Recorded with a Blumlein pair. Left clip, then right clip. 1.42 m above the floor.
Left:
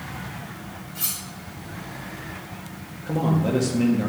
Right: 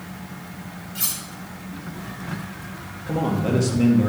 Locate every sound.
0.9 s cutlery clinking: 15° right, 2.5 m
3.1 s a man speaking: straight ahead, 2.5 m